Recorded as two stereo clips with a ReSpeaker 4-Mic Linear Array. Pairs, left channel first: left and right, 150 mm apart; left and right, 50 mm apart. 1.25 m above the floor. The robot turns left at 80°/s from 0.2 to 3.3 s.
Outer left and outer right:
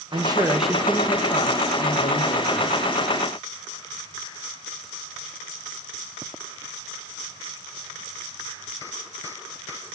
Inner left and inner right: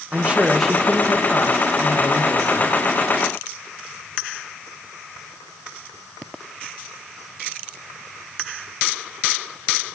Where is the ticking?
No ticking in this recording.